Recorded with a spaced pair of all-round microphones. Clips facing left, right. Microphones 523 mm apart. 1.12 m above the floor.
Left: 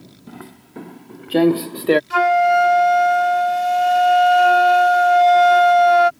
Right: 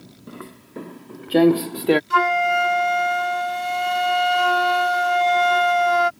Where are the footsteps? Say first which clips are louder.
Even; 10° left (ahead or behind); by 2.0 s 5° right (ahead or behind).